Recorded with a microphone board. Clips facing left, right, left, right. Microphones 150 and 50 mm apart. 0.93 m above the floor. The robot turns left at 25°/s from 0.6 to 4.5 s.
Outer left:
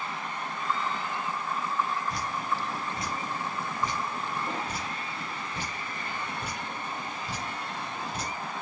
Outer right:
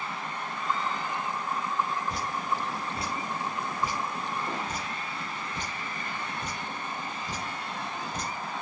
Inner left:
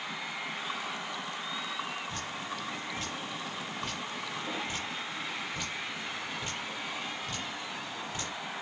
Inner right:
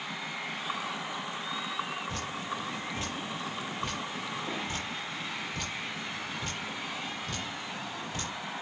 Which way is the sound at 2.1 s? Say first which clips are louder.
Even, inner right 2 dB; 50° right (ahead or behind).